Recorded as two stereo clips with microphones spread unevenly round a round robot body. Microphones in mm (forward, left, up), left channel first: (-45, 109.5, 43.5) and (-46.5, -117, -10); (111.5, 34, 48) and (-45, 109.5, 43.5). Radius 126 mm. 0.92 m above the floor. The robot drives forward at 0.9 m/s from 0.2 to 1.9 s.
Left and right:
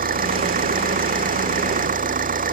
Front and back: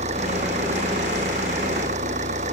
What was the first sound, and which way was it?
An engine running, 145° right.